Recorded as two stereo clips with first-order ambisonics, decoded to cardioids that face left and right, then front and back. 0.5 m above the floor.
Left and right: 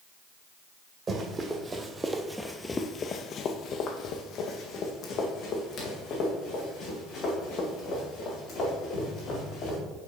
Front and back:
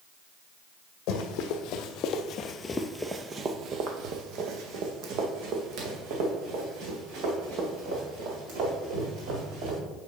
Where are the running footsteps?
20° right, 1.1 m; by 9.8 s 150° left, 4 m.